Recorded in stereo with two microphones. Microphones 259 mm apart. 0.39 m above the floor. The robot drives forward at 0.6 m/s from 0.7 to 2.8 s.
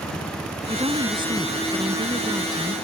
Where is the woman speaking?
20° right (ahead or behind); by 2.7 s 15° right (ahead or behind).